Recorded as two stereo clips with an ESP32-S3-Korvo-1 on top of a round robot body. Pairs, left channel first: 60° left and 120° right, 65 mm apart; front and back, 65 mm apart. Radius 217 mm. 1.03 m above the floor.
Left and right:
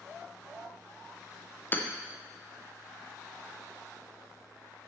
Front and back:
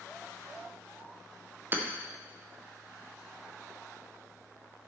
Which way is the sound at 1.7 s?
120° left.